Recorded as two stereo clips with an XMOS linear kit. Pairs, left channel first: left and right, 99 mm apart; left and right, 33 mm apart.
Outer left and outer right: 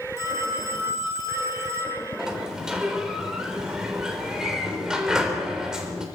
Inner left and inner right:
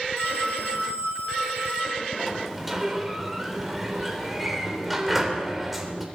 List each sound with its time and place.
0.2 s a phone ringing: 80° left, 10 m
2.2 s a sliding door: 5° right (ahead or behind), 3 m